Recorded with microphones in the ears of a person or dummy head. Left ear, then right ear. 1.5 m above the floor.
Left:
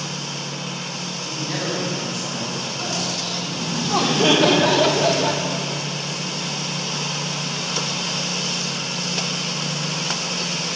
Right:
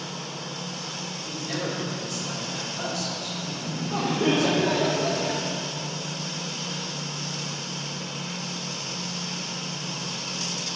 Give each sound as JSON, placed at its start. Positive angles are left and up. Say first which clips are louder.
{"t": 1.2, "sound": "a man speaking", "louder": "left 5 dB", "side_deg": -20, "distance_m": 4.0}
{"t": 3.5, "sound": "laughter", "louder": "left 8 dB", "side_deg": 55, "distance_m": 1.3}